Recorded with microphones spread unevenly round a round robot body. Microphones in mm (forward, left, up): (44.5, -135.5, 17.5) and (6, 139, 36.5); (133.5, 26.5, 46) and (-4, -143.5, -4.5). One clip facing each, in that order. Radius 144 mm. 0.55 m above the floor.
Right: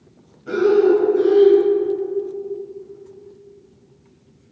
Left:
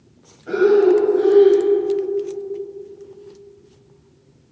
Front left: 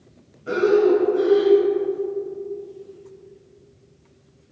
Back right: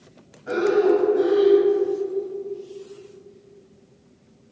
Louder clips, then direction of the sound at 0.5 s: Left 1 dB, front left 2 dB; 5° right.